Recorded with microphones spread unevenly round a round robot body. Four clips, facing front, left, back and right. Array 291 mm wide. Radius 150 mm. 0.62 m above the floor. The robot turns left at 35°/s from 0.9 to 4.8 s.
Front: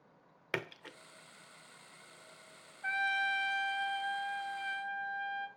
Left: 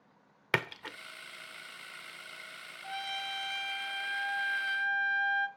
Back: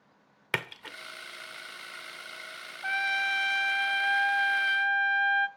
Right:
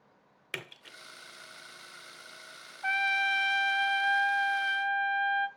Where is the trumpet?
135° right, 1.3 m; by 5.5 s 155° left, 1.3 m.